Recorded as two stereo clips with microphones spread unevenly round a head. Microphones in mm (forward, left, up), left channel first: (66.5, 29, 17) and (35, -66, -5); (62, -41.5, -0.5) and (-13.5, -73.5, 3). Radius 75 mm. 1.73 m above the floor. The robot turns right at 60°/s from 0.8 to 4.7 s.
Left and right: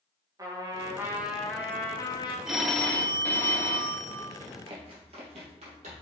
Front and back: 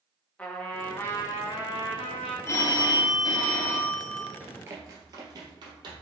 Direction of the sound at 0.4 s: 50° right.